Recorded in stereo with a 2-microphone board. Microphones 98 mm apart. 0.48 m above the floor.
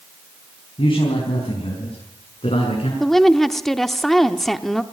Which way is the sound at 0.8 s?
60° left (ahead or behind).